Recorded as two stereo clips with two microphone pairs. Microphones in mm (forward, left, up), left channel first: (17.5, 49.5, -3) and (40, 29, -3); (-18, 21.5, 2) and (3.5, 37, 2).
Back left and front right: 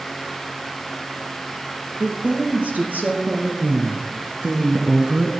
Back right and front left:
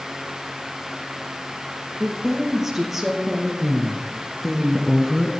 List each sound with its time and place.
2.0 s a woman speaking: 40° right, 4 m; by 5.3 s 70° right, 1.3 m